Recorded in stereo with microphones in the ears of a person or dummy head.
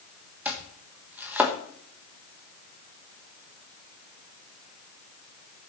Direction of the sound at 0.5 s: 10° right (ahead or behind).